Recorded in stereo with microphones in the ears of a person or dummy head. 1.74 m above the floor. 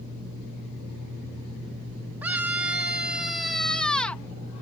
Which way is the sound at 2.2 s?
5° right (ahead or behind).